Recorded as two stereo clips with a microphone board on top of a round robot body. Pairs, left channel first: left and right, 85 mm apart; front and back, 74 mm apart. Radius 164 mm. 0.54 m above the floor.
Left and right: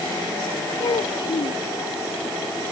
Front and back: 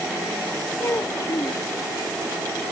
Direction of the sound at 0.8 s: 60° left.